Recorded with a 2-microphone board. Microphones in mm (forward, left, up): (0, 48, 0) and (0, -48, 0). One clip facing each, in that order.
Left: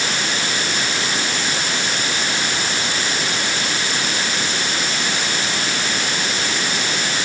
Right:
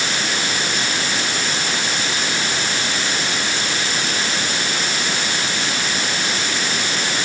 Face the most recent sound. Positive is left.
No sound to turn to.